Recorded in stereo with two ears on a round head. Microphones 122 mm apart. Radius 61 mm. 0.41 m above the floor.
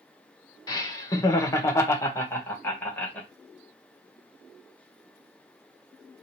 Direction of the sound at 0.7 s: 25° left (ahead or behind).